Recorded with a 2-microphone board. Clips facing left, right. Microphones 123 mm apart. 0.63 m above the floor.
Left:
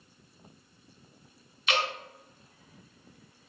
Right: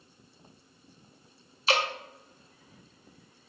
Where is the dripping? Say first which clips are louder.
Right 2 dB; 35° right (ahead or behind), 0.6 m.